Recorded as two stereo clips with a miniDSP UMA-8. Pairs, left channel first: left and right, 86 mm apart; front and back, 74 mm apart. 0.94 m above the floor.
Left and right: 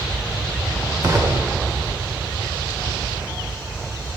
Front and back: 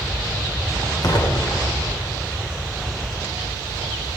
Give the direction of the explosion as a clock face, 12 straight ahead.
1 o'clock.